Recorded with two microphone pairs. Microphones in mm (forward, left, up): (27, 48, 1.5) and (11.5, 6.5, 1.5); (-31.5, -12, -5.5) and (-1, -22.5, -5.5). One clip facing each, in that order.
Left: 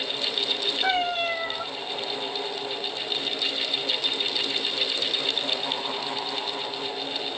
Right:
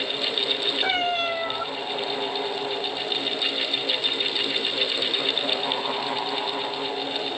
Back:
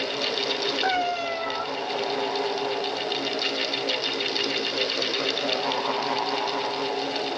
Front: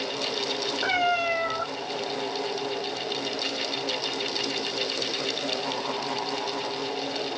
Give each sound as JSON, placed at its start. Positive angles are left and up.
{"t": 0.8, "sound": "a cat meowing", "azimuth_deg": -55, "distance_m": 2.5}